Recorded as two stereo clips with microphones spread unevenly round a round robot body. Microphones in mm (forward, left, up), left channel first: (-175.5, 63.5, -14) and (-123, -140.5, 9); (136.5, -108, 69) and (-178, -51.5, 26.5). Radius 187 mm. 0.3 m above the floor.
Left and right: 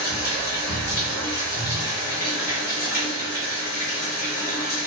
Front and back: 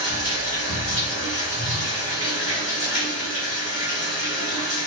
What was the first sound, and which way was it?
Running water, 100° left.